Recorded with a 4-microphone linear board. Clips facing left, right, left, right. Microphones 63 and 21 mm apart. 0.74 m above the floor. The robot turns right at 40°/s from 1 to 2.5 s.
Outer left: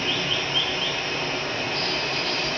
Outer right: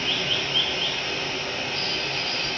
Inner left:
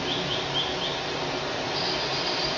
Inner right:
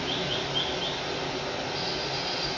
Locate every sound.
0.0 s running water: 25° left, 0.8 m; by 2.6 s 85° left, 0.8 m